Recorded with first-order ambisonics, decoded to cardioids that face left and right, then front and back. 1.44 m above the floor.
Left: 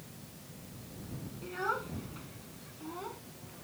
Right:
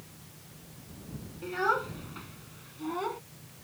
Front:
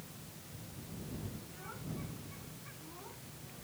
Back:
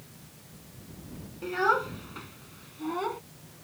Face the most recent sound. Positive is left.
turn(degrees=-150)